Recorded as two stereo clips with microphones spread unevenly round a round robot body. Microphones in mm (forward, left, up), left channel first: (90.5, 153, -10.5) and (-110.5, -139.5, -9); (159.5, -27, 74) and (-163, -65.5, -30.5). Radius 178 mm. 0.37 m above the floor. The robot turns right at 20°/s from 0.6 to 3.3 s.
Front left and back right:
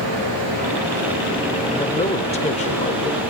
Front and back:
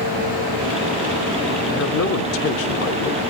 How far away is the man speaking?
About 0.9 m.